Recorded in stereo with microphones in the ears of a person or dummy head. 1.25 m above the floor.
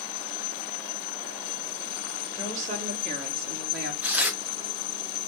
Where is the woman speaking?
20° right (ahead or behind), 1.2 m; by 3.9 s 60° right (ahead or behind), 1.0 m.